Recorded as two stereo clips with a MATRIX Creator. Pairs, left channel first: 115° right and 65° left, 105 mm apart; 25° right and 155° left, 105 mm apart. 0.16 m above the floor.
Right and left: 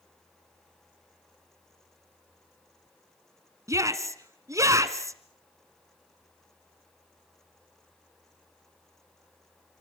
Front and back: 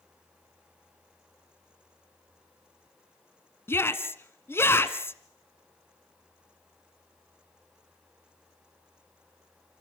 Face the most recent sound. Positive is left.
turn(degrees=30)